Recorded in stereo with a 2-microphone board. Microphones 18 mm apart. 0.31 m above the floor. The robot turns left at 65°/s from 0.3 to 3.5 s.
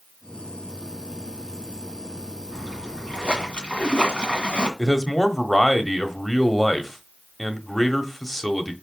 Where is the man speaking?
10° left (ahead or behind), 1.2 m.